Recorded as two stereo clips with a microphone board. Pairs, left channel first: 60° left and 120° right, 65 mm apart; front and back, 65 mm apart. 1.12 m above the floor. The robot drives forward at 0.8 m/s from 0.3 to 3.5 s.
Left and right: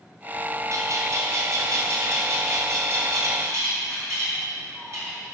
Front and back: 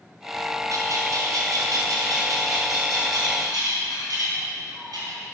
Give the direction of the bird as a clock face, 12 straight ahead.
5 o'clock.